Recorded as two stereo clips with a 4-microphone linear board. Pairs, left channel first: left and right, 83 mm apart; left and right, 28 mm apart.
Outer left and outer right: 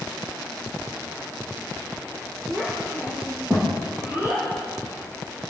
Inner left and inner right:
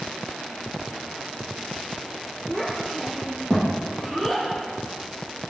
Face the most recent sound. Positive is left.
turn(degrees=-25)  # may be behind; listen again after turning